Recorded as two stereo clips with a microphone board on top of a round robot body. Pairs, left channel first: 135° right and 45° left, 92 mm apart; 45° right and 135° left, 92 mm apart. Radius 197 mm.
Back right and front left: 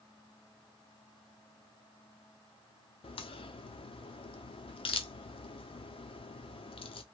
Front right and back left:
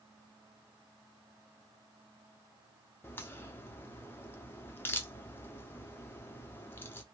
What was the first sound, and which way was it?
A crack, 115° right.